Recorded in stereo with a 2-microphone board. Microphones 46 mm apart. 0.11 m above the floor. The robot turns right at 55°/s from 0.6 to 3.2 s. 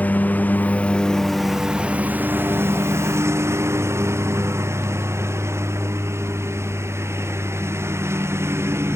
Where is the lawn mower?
35° left (ahead or behind); by 9.0 s 75° right (ahead or behind).